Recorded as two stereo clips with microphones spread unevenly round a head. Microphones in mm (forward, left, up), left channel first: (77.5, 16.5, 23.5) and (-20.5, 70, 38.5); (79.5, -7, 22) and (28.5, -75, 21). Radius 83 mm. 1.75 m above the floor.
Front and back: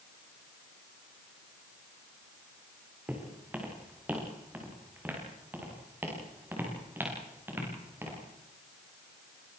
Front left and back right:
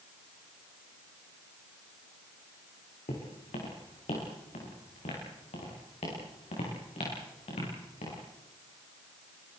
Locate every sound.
3.1 s footsteps: 75° left, 6.5 m; by 8.2 s 80° left, 12.5 m